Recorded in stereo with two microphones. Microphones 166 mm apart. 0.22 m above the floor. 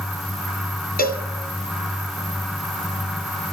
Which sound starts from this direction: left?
A cowbell, at 1.0 s.